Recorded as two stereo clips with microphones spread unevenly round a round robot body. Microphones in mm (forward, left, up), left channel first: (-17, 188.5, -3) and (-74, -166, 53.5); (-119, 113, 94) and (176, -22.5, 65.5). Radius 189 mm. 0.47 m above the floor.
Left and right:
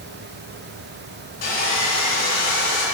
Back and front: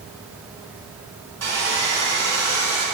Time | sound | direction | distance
1.4 | sawing | 15° left | 3.5 m